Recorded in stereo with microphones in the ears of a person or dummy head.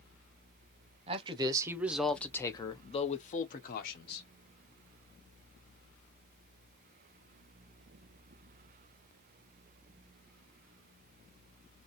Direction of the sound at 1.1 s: 35° right (ahead or behind).